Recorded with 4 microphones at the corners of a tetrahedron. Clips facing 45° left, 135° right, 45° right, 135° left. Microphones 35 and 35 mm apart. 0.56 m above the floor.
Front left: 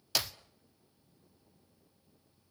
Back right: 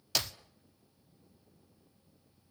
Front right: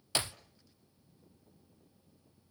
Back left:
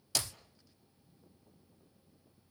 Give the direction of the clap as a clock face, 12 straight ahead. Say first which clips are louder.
Even, front right 3 dB; 1 o'clock.